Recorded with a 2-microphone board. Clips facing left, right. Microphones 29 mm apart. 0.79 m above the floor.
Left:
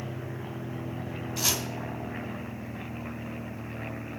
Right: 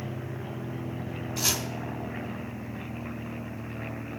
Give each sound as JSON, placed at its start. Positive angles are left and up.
{"t": 1.4, "sound": "chopping", "side_deg": 0, "distance_m": 1.2}